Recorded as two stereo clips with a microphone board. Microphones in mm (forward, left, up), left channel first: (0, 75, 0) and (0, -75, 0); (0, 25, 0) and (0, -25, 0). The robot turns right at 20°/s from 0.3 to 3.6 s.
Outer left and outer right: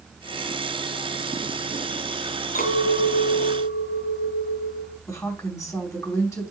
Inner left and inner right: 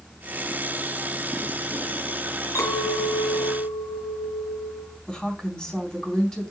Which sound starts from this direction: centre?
A woman speaking, at 5.1 s.